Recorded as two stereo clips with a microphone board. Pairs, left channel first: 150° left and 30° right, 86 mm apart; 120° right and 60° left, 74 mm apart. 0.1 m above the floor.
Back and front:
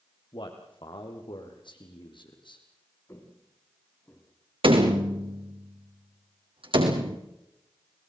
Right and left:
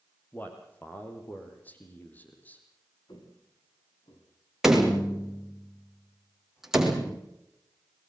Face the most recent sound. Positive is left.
turn(degrees=-25)